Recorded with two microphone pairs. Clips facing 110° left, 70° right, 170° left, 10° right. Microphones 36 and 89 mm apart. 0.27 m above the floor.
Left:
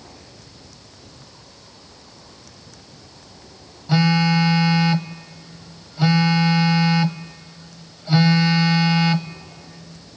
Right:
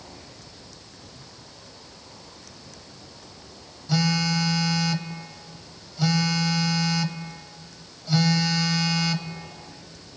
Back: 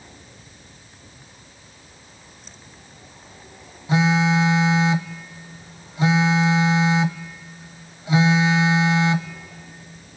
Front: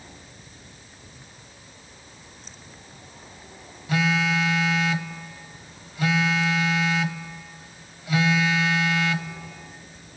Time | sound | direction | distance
3.9 | a phone buzzing | 135° left | 0.6 m